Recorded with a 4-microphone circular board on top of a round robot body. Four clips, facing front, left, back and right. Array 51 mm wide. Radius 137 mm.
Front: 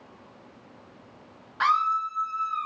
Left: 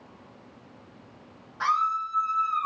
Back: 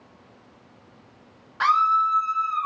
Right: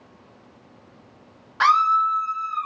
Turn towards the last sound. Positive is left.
turn(degrees=160)